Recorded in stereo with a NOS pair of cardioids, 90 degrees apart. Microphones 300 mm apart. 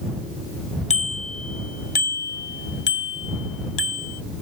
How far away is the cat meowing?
No cat meowing in this recording.